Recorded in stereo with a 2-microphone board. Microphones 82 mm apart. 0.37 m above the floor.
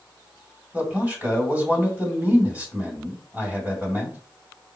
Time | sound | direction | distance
0.7 | a man speaking | 20° right (ahead or behind) | 2 m